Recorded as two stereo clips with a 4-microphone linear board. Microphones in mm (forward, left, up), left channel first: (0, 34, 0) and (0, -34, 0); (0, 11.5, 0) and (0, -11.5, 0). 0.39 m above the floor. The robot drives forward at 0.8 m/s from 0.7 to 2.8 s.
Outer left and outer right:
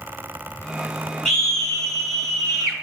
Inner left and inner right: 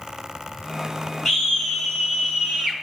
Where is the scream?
10° left (ahead or behind), 5 m; by 2.8 s 5° left (ahead or behind), 6 m.